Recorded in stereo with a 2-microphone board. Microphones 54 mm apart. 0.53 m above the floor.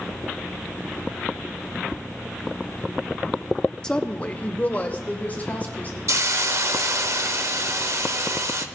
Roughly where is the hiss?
Right.